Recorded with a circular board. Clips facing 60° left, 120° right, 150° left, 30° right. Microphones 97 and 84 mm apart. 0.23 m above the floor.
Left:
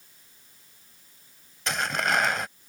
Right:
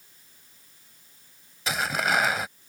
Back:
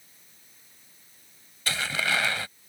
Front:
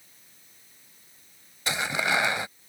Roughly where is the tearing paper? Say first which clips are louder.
Right 1 dB, front 2 dB; ahead right.